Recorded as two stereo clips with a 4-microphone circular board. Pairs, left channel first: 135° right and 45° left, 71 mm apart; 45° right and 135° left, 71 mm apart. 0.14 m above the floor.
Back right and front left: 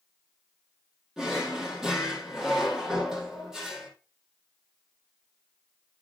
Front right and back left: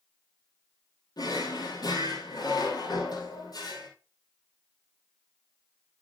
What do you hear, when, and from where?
1.2 s a drawer: 35° right, 2.0 m